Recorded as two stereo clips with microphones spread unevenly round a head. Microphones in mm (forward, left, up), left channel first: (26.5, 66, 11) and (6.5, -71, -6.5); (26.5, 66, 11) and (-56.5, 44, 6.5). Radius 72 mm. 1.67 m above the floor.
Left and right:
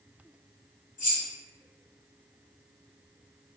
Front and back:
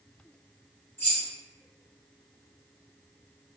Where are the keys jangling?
75° left, 1.3 m.